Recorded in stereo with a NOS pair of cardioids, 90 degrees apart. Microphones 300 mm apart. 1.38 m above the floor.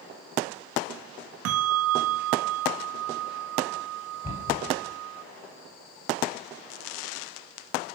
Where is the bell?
55° right, 0.6 m.